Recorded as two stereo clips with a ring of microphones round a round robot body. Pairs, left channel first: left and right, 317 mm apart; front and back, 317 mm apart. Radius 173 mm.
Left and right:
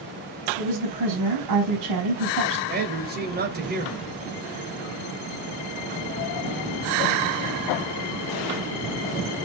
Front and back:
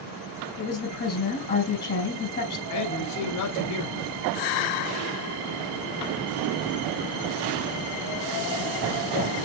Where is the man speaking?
30° right, 3 m.